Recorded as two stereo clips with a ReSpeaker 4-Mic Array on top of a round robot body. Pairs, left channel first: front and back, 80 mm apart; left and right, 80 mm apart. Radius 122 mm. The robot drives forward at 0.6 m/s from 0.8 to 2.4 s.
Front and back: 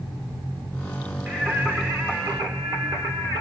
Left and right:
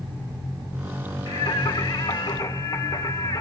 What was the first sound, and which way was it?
Singing, 100° left.